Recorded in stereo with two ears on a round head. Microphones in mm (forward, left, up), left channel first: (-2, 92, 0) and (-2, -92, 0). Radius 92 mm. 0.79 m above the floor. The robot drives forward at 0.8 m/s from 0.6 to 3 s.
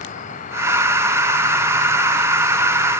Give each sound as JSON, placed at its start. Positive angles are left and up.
{"t": 0.0, "sound": "an insect", "side_deg": 40, "distance_m": 3.0}